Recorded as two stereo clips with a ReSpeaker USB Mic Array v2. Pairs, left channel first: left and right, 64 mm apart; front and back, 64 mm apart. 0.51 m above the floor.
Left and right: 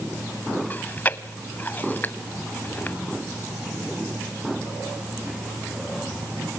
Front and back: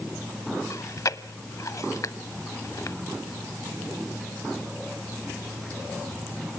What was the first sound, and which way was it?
Chewing, 30° left.